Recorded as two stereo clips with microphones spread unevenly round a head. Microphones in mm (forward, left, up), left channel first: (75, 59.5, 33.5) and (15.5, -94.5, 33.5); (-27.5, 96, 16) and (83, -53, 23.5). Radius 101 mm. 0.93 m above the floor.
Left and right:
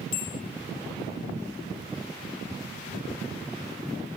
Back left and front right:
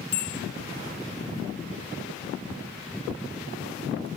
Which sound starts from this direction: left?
A bell, at 0.1 s.